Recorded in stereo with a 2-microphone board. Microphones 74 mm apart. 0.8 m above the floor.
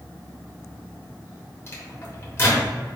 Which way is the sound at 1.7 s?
30° left (ahead or behind).